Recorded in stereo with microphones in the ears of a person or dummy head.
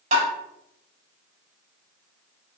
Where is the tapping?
35° right (ahead or behind), 4 m.